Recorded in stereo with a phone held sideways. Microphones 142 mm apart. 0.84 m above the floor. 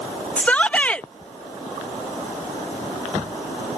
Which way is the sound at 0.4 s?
10° left (ahead or behind).